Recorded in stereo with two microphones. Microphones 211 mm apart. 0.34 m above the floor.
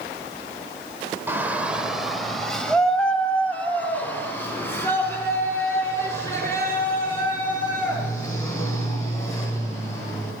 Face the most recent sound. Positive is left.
turn(degrees=15)  # may be behind; listen again after turning